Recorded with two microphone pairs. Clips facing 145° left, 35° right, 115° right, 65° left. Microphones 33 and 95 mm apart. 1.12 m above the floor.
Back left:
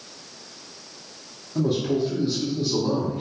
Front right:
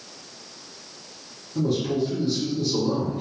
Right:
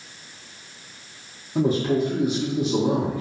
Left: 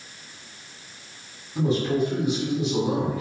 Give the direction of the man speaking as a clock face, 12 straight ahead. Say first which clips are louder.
Back left 1 dB, right 2 dB; 5 o'clock.